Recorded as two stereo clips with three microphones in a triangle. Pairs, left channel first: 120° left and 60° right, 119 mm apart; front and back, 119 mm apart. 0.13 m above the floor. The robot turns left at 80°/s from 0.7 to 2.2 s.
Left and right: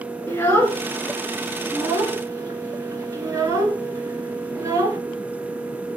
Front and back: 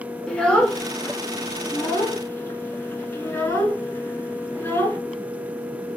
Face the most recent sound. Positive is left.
turn(degrees=-45)